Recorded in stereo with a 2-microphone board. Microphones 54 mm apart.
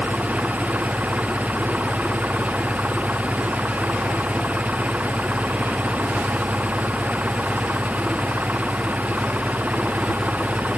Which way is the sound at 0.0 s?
30° right (ahead or behind).